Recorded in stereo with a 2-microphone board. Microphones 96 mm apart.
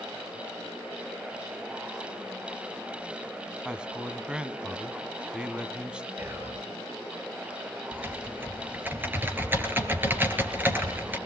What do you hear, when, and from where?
3.6 s a man speaking: 10° right (ahead or behind), 1.1 m
6.2 s whispering: 30° right (ahead or behind), 4 m
7.9 s typing on a keyboard: 20° right (ahead or behind), 3.5 m